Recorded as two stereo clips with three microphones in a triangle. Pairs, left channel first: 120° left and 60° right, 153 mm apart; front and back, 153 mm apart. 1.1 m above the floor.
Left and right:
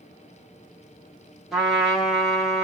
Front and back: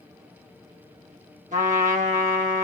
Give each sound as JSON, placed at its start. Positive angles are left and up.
{"t": 1.5, "sound": "a trumpet", "azimuth_deg": -150, "distance_m": 1.2}